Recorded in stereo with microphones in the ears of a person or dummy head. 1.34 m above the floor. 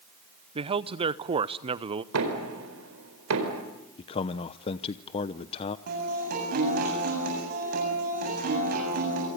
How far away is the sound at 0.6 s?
About 0.6 m.